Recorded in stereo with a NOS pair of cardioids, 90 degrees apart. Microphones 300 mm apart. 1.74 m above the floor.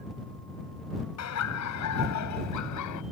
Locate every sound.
1.2 s laughter: 65° left; by 3.0 s 80° left